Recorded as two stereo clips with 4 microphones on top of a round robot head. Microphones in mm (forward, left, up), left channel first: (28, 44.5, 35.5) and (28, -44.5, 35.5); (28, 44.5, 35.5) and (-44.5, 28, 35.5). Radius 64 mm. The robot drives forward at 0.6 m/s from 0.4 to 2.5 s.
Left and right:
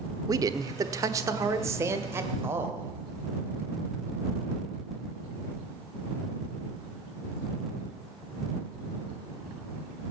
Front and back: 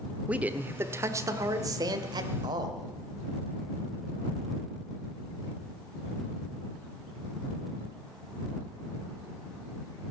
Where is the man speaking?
105° right, 1.1 m; by 2.9 s 155° right, 1.8 m.